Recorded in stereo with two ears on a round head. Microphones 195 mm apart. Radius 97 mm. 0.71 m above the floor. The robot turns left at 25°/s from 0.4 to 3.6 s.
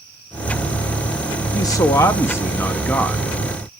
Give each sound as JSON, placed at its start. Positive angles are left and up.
{"t": 1.5, "sound": "a man speaking", "side_deg": 15, "distance_m": 0.5}